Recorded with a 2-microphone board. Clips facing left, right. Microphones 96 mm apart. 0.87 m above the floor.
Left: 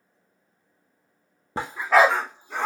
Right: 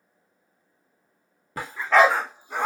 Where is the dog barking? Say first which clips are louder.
Even; 30° left (ahead or behind), 0.5 m; by 2.7 s 15° right (ahead or behind), 1.0 m.